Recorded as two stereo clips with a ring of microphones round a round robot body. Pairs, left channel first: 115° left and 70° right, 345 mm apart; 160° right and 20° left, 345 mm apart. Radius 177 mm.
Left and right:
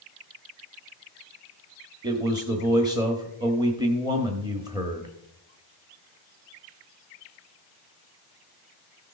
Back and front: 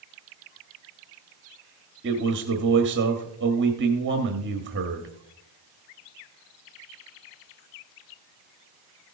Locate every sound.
2.0 s a man speaking: straight ahead, 1.3 m